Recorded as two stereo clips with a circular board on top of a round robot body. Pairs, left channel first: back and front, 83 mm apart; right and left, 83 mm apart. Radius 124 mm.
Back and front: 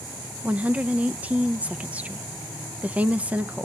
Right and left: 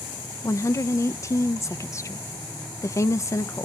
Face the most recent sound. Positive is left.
turn(degrees=-65)